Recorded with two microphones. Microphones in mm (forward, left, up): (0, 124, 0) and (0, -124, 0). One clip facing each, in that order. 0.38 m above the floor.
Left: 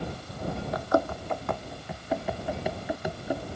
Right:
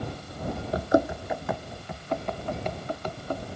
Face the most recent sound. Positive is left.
turn(degrees=10)  # may be behind; listen again after turning